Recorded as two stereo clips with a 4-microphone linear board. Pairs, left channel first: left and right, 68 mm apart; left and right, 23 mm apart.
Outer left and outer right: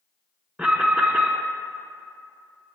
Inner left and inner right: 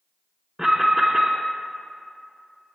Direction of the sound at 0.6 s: 15° right (ahead or behind).